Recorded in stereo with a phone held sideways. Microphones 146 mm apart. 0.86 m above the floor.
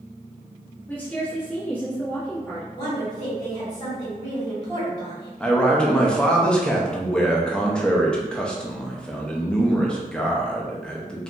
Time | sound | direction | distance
0.9 | a woman speaking | 10° left (ahead or behind) | 1.1 m
2.7 | a woman speaking | 25° left (ahead or behind) | 1.5 m
5.4 | a man speaking | 5° left (ahead or behind) | 0.5 m